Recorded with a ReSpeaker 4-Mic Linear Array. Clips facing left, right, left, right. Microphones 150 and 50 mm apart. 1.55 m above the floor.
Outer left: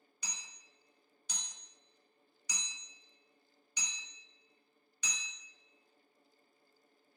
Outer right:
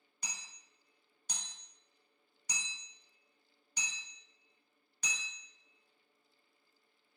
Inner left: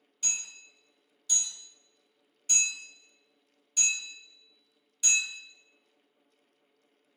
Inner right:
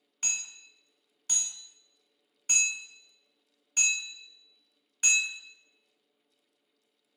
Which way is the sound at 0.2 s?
55° right (ahead or behind).